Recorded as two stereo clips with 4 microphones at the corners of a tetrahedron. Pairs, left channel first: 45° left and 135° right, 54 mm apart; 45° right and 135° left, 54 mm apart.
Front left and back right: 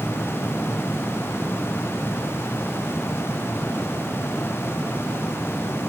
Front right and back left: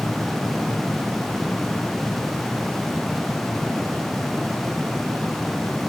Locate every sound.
Only background noise.